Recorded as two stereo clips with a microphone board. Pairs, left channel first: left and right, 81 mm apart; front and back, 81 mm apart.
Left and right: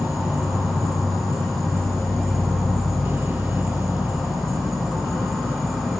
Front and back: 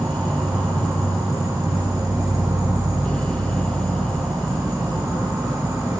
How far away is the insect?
About 2 m.